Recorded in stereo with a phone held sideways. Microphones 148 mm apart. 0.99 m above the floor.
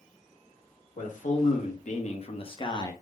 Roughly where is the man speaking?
Left.